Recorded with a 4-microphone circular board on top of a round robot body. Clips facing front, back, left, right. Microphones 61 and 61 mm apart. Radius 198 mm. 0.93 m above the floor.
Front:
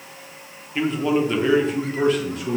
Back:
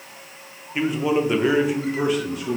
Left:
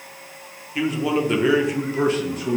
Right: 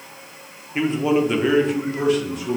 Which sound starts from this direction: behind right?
A man speaking, at 0.8 s.